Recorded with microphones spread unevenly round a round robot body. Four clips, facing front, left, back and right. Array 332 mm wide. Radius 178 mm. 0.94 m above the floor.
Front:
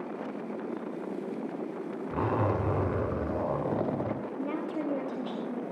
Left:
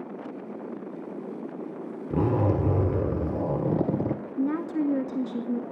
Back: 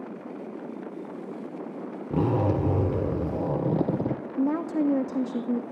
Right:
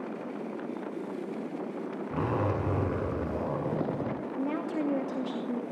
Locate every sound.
2.1 s a zipper: 125° left, 1.6 m
4.4 s a woman speaking: 140° left, 1.9 m